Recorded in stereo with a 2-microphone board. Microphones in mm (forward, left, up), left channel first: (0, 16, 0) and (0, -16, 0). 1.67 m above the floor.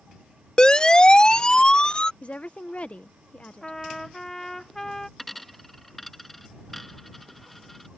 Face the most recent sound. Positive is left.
turn(degrees=10)  # may be behind; listen again after turning